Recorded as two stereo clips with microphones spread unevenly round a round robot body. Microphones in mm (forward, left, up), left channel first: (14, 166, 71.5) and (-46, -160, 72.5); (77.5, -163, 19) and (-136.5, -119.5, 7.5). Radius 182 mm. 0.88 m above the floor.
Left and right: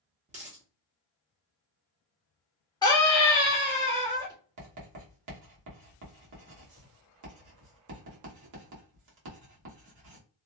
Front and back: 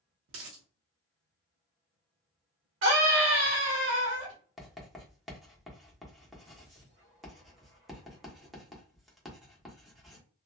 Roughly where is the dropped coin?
Behind.